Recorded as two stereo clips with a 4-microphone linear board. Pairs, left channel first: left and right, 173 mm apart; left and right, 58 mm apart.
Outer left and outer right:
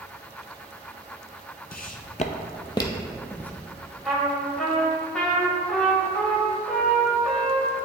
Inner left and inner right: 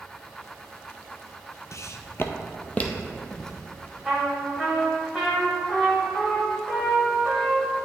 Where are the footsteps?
60° left (ahead or behind), 0.5 m; by 3.5 s 10° left (ahead or behind), 1.0 m.